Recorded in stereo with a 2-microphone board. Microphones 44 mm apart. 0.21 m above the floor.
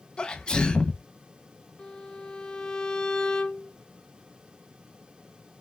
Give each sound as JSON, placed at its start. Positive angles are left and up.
{"t": 0.2, "sound": "a sneeze", "side_deg": 20, "distance_m": 1.1}
{"t": 1.8, "sound": "a violin", "side_deg": 15, "distance_m": 0.7}